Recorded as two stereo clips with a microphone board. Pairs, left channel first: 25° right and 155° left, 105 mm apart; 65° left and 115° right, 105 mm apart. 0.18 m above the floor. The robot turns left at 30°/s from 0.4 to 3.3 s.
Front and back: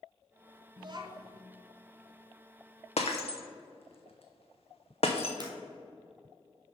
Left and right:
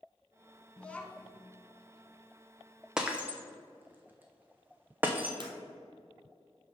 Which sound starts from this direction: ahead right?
Breaking glass, at 3.0 s.